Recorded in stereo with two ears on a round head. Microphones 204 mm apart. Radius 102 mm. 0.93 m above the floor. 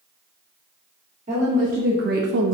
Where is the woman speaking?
35° right (ahead or behind), 1.7 m; by 2.5 s 60° right (ahead or behind), 0.6 m.